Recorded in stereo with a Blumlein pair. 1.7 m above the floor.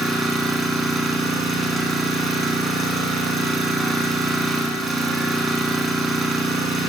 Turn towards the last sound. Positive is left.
turn(degrees=-10)